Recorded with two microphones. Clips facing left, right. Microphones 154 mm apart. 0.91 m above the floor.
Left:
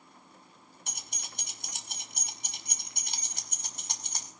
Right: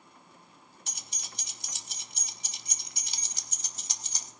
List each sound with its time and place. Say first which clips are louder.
0.9 s keys jangling: left 2 dB; 55° left (ahead or behind), 0.9 m